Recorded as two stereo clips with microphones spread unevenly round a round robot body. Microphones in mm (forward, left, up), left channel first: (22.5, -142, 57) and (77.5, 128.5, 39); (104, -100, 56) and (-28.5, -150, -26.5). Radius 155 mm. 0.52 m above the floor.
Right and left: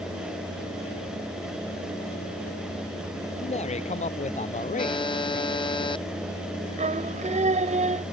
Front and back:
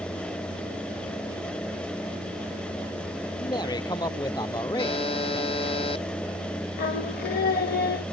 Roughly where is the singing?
Ahead.